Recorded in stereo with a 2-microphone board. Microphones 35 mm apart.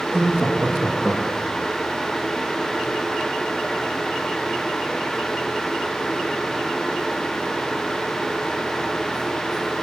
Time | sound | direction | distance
0.1 | laughter | 5° right (ahead or behind) | 5.5 m